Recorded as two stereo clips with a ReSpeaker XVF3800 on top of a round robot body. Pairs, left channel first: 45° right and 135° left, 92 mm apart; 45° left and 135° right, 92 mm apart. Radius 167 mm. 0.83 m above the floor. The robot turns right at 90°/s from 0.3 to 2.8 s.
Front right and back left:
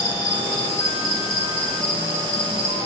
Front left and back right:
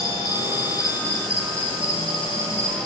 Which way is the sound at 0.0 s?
95° right.